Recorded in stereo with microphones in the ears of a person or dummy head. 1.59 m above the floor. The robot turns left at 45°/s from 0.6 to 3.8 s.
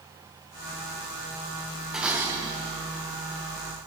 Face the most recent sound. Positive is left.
turn(degrees=-85)